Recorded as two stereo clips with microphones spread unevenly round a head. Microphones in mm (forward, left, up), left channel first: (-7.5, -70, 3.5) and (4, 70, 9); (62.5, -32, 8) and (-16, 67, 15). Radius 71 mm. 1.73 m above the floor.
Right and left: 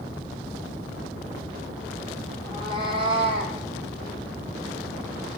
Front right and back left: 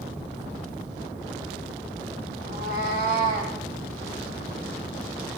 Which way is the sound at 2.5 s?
140° left.